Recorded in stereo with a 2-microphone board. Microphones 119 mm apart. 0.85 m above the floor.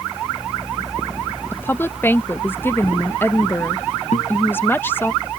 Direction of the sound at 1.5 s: 20° left (ahead or behind).